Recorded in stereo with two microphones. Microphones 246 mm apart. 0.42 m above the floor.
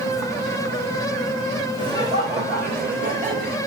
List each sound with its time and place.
1.8 s laughter: 20° right (ahead or behind), 1.2 m; by 3.6 s 35° right (ahead or behind), 2.0 m